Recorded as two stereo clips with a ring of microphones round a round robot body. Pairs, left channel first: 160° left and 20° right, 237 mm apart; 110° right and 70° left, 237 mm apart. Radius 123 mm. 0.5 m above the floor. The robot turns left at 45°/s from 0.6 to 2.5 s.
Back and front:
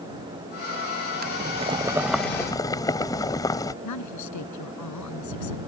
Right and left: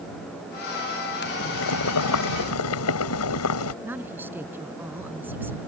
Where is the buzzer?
I don't hear a buzzer.